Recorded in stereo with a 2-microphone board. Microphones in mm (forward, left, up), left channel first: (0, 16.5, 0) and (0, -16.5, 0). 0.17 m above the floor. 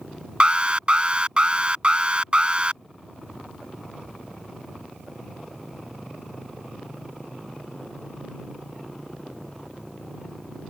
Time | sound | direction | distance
0.4 | an alarm | 30° right (ahead or behind) | ?